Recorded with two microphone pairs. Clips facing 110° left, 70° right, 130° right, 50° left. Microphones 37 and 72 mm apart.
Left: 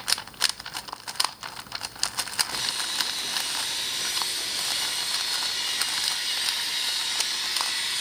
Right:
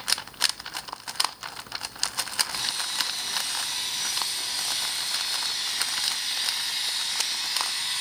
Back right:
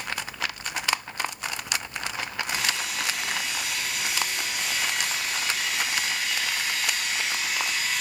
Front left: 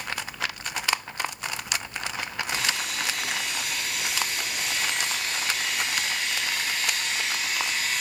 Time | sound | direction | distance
2.5 | sawing | 140° left | 2 m